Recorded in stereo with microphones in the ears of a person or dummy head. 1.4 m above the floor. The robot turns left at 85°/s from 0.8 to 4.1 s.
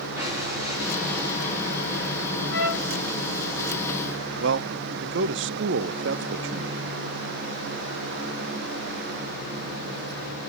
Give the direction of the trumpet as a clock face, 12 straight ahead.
9 o'clock.